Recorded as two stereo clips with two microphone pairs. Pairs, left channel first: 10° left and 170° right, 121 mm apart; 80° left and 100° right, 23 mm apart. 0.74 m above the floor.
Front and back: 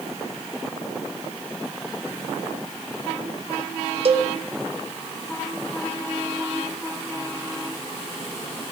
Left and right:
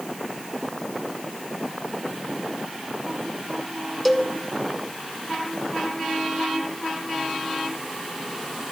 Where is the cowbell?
165° left, 0.7 m.